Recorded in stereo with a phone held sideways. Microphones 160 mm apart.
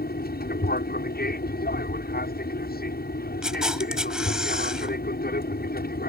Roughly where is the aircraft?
Left.